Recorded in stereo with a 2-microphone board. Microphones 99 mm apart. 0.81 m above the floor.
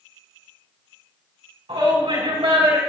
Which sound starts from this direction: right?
A shout, at 1.7 s.